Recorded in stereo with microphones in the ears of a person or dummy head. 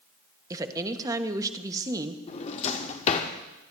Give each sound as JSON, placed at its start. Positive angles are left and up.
{"t": 0.5, "sound": "a woman speaking", "side_deg": -20, "distance_m": 1.2}
{"t": 2.3, "sound": "a drawer", "side_deg": 35, "distance_m": 1.2}